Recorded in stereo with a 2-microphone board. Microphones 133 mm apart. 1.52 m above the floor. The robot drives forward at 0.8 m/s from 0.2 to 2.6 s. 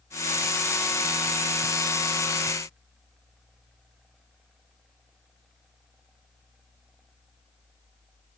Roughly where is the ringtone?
I don't hear a ringtone.